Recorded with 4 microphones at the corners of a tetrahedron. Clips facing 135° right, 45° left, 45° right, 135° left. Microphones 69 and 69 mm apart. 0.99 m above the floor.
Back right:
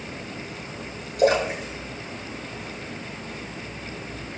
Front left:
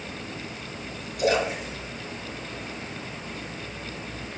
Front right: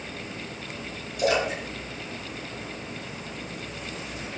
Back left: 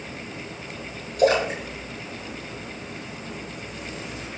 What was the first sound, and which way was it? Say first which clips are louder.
A splash: back right 4 dB, back left 5 dB; 175° right.